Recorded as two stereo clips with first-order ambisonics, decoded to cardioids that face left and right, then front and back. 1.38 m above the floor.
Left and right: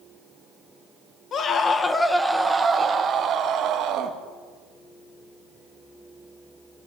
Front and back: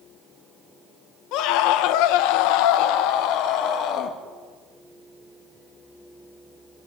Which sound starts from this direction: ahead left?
A scream, at 1.3 s.